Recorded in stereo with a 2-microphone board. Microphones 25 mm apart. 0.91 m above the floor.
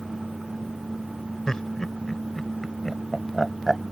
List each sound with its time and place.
1.5 s laughter: 25° left (ahead or behind); by 3.8 s 5° right (ahead or behind)